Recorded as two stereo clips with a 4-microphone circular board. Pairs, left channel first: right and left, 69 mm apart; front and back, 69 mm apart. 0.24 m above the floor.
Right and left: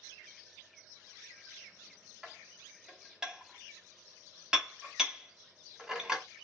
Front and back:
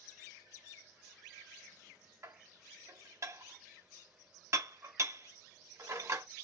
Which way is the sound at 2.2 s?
165° left.